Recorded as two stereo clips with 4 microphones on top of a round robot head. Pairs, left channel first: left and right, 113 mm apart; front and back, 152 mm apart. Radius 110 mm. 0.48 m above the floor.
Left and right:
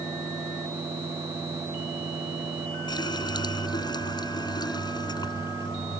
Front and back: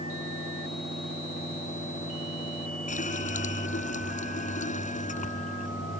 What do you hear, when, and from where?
2.9 s a running tap: 40° left